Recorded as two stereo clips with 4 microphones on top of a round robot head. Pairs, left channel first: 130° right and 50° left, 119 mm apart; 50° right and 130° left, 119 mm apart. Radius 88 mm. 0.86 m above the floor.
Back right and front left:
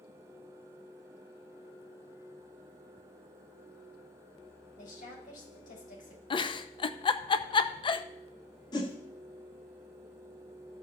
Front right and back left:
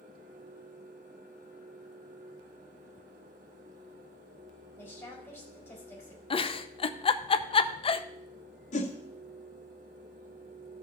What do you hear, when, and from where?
4.8 s a woman speaking: 125° right, 4 m
6.3 s a giggle: 85° right, 0.6 m
8.7 s a whoosh: 70° right, 1.5 m